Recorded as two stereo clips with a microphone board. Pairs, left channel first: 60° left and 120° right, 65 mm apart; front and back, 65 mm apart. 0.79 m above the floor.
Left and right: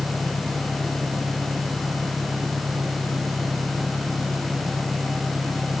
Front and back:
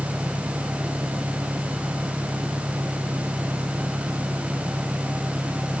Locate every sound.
0.0 s an engine running: 120° right